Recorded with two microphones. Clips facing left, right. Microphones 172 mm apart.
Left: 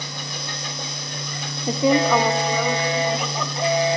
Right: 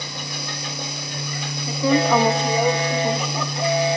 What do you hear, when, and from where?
1.7 s a woman speaking: 40° left (ahead or behind), 0.7 m; by 3.5 s 45° right (ahead or behind), 2.5 m